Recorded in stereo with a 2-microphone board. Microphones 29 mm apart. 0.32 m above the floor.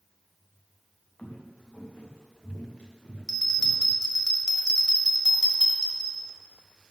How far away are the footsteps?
About 2 m.